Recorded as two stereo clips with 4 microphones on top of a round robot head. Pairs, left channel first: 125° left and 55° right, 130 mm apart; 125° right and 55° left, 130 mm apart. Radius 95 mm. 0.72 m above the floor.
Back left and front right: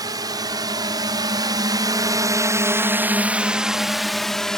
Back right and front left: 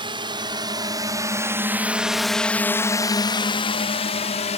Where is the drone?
5° left; by 4.6 s 150° right.